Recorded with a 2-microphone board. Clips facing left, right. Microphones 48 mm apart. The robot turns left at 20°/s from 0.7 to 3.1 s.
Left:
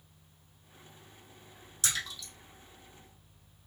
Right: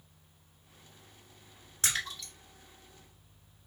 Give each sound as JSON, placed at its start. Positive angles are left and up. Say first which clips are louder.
{"t": 1.8, "sound": "a splash", "louder": "right 2 dB", "side_deg": -35, "distance_m": 1.9}